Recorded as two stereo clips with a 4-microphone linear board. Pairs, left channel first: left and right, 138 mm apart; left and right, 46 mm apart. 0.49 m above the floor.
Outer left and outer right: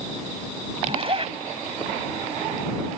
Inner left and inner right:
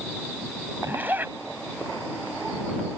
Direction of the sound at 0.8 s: 45° right (ahead or behind).